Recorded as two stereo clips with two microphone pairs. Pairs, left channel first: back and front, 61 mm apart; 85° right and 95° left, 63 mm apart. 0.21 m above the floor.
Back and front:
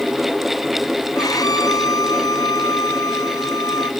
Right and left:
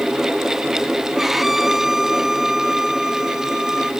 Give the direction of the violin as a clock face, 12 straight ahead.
6 o'clock.